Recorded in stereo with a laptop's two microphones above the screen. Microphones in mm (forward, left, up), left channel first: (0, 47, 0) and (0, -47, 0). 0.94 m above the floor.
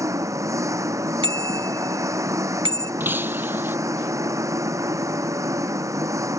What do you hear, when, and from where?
0.0 s an engine running: 35° right (ahead or behind)
1.2 s a bicycle bell: 70° right (ahead or behind)
3.0 s breaking glass: 25° right (ahead or behind)